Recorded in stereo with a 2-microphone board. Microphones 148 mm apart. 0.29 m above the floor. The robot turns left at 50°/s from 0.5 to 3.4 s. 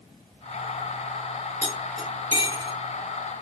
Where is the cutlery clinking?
20° left (ahead or behind), 2 m; by 2.7 s 35° right (ahead or behind), 2 m.